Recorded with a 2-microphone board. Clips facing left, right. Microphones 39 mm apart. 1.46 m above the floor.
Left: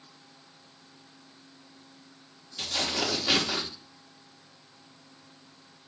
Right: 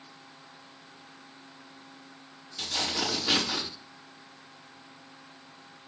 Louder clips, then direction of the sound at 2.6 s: Left 1 dB; 15° left (ahead or behind).